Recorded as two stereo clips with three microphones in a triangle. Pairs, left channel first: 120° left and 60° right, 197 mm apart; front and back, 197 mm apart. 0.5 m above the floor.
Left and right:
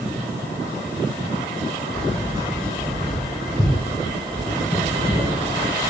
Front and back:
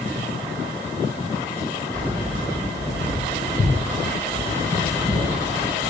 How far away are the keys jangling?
About 2 m.